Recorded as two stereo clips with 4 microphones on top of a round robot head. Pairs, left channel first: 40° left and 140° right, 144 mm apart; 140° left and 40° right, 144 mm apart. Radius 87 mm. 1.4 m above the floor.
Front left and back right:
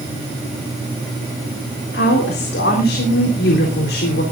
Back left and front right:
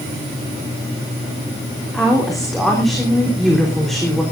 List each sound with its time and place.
1.9 s a woman speaking: 55° left, 3.5 m